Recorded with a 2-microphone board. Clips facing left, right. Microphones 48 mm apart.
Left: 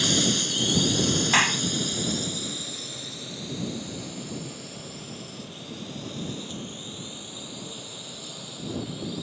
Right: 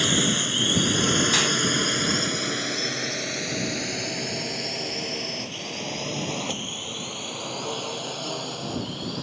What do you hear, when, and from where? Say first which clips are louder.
0.0 s a drone: right 2 dB; 30° right (ahead or behind); by 9.2 s 65° right (ahead or behind)
1.3 s a clap: left 1 dB; 35° left (ahead or behind)